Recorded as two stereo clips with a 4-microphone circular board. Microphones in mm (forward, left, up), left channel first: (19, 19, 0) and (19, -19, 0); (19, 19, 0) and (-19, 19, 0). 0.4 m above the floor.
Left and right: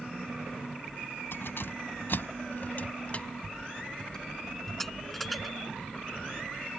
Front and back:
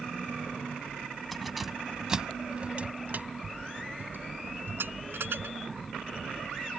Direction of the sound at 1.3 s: 90° left.